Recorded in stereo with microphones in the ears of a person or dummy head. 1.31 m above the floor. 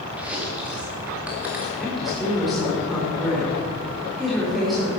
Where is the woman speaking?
Centre (ahead or behind), 4 m.